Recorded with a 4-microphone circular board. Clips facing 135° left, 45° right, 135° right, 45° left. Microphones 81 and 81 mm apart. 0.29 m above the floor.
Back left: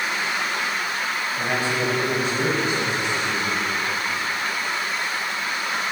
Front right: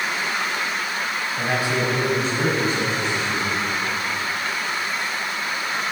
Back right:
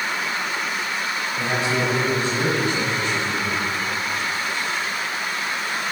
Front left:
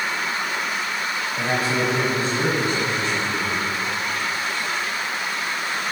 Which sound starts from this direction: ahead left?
A man speaking, at 1.4 s.